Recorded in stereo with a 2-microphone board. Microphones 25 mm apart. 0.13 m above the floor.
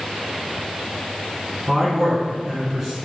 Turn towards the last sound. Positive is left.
turn(degrees=-15)  # may be behind; listen again after turning